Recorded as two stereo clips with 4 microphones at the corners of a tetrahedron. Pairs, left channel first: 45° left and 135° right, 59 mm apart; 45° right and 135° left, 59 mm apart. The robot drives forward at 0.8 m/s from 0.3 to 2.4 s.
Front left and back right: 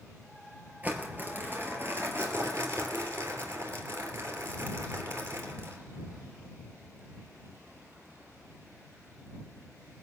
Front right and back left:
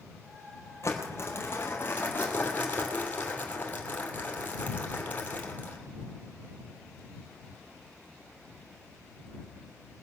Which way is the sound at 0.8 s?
75° right.